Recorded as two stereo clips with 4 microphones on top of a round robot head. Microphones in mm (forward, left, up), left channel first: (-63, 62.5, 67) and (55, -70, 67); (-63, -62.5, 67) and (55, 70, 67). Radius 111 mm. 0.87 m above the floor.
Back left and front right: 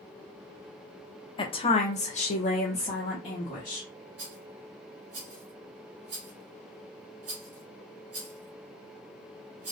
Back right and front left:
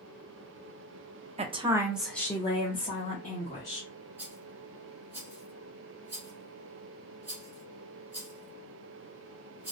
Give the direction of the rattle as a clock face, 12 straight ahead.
1 o'clock.